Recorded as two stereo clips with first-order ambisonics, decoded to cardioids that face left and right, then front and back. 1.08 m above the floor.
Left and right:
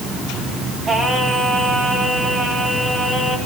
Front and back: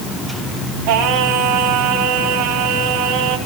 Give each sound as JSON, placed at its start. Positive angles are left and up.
{"t": 0.9, "sound": "singing", "azimuth_deg": -170, "distance_m": 3.0}